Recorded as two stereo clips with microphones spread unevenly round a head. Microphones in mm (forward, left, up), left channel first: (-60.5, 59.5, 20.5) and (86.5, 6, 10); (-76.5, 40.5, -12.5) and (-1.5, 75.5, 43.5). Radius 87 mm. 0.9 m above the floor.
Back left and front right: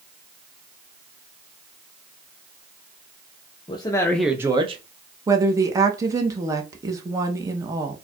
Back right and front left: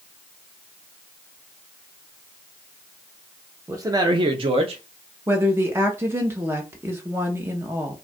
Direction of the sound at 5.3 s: 75° right.